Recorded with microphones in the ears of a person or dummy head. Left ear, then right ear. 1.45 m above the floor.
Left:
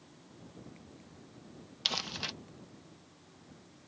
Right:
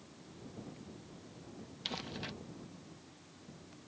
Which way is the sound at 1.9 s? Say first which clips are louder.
Left 8 dB; 40° left (ahead or behind).